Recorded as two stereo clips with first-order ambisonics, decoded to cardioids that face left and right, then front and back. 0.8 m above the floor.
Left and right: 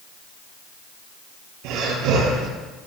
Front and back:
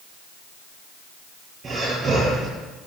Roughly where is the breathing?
Right.